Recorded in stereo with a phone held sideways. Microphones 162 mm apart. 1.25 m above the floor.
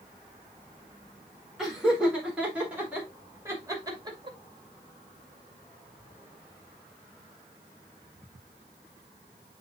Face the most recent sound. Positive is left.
turn(degrees=-30)  # may be behind; listen again after turning